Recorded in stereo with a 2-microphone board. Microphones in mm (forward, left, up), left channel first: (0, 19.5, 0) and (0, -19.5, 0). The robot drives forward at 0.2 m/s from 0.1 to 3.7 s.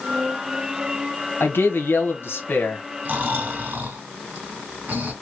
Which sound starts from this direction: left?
A man speaking, at 1.4 s.